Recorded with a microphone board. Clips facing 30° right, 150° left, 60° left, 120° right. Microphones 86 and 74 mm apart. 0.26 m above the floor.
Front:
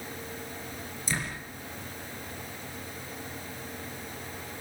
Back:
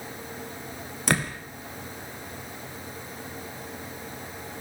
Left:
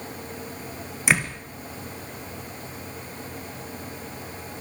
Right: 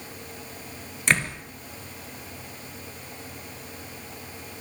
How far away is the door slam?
About 3 m.